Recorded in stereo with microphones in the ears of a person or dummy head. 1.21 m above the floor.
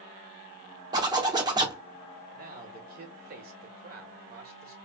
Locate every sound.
0.9 s a zipper: 20° right (ahead or behind), 0.7 m
2.3 s a man speaking: 45° right (ahead or behind), 0.9 m